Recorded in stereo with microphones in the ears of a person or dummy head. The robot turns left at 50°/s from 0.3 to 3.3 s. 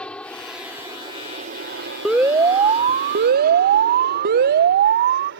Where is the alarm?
5° right; by 5.3 s 65° right.